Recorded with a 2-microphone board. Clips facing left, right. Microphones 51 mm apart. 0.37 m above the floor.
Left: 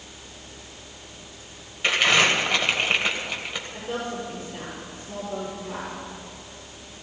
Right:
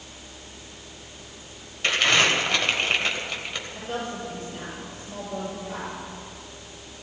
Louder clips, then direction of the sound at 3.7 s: Left 2 dB; 25° left (ahead or behind).